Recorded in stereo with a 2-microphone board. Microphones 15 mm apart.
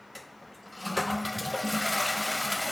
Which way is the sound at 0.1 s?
Centre (ahead or behind).